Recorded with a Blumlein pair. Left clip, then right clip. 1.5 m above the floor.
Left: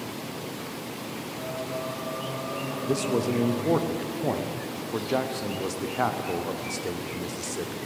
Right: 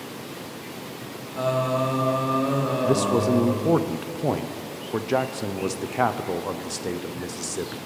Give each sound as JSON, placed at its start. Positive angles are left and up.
{"t": 1.4, "sound": "singing", "azimuth_deg": -40, "distance_m": 0.5}
{"t": 2.9, "sound": "a man speaking", "azimuth_deg": -15, "distance_m": 0.7}